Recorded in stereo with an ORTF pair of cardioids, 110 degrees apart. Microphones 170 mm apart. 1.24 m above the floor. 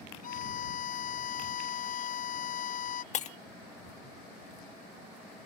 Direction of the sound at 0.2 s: 55° left.